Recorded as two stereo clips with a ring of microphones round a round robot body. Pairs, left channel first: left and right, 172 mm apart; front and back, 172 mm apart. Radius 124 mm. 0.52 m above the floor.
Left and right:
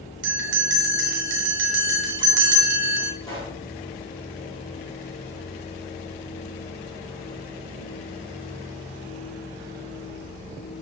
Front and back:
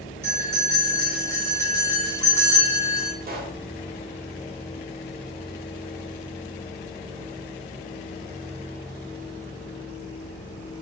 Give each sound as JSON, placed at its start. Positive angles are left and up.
{"t": 0.2, "sound": "a bell", "azimuth_deg": -100, "distance_m": 3.0}
{"t": 3.2, "sound": "a pop", "azimuth_deg": 165, "distance_m": 3.0}